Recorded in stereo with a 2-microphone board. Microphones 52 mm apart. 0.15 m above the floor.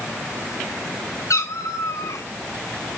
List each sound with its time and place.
1.3 s a cat meowing: 90° left, 1.8 m